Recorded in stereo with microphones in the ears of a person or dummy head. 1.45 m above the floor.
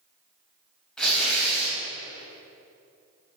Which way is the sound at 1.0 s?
5° left (ahead or behind).